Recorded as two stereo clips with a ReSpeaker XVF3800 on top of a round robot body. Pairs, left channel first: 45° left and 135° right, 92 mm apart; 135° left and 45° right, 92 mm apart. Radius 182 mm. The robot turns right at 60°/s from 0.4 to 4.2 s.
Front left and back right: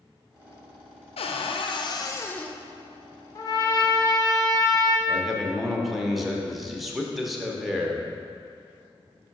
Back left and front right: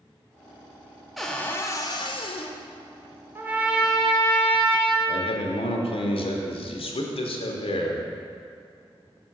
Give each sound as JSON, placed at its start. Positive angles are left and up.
{"t": 1.2, "sound": "a cupboard door", "azimuth_deg": 45, "distance_m": 0.6}
{"t": 3.4, "sound": "a trumpet", "azimuth_deg": 10, "distance_m": 1.1}
{"t": 5.1, "sound": "a man speaking", "azimuth_deg": 135, "distance_m": 0.8}